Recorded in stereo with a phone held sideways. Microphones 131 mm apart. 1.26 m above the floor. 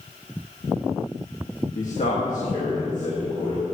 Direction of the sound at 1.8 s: 70° left (ahead or behind).